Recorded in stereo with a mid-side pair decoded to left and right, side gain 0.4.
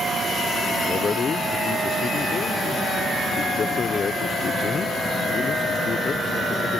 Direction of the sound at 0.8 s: 50° left.